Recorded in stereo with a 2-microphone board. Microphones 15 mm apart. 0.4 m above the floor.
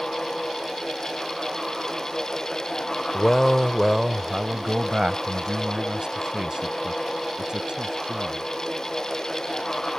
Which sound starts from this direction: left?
A man speaking, at 3.1 s.